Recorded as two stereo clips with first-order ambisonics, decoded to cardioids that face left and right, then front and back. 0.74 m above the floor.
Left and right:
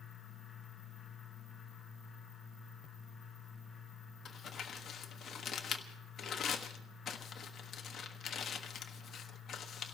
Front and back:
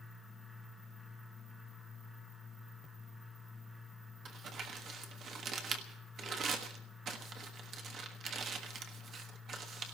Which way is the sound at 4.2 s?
140° left.